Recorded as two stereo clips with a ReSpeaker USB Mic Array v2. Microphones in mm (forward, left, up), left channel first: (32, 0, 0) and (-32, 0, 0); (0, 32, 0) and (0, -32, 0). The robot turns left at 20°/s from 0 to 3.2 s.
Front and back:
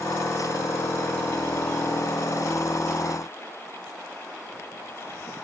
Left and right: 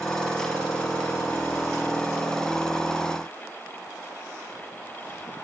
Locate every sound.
Only background noise.